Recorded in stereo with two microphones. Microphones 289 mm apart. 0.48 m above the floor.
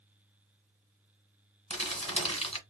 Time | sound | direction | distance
1.7 | crumpling | 20° left (ahead or behind) | 1.2 m